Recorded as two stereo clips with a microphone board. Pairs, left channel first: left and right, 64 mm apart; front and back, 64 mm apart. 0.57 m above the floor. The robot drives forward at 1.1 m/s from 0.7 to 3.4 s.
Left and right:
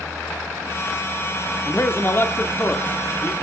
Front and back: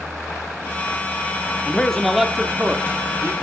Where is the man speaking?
60° left, 1.5 m; by 3.3 s 145° left, 1.9 m.